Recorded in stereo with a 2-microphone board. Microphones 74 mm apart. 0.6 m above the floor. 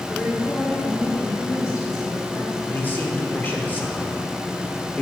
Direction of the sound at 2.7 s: 30° left (ahead or behind).